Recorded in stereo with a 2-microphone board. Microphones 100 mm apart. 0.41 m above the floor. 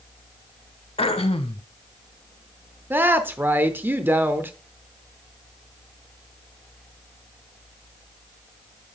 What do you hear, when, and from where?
1.0 s throat clearing: 70° left (ahead or behind), 0.6 m
2.9 s a woman speaking: 20° right (ahead or behind), 0.8 m